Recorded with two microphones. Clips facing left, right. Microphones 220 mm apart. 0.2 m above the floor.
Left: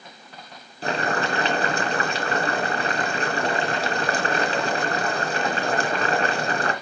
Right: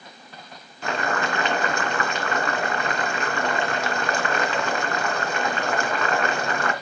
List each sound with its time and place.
0.8 s boiling: 35° left (ahead or behind), 2 m